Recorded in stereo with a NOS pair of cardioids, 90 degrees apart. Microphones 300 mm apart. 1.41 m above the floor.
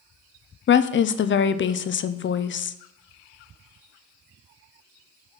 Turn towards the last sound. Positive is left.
turn(degrees=40)